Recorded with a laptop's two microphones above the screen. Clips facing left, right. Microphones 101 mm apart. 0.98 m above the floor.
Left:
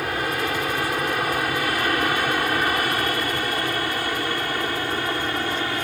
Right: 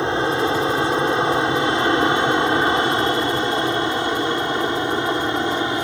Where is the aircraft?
25° right (ahead or behind); by 5.8 s 20° right (ahead or behind).